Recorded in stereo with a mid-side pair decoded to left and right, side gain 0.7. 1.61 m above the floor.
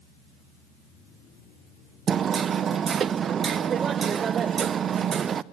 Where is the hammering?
35° right, 0.6 m.